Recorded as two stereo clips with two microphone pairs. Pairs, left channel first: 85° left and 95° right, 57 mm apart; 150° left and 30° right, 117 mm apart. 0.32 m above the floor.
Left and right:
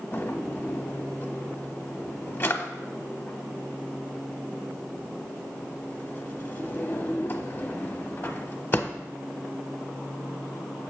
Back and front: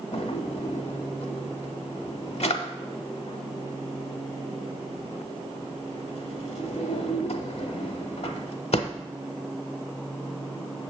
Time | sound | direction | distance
0.1 | a drawer | 135° left | 0.6 m